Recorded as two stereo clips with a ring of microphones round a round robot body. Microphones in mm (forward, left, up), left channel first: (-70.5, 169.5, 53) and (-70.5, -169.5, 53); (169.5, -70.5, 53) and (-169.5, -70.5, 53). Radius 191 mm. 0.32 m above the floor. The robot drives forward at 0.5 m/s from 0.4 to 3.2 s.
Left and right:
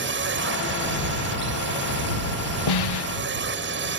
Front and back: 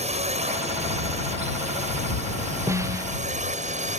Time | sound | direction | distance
0.0 | a drone | 120° right | ?
2.7 | a snare drum | 95° left | ?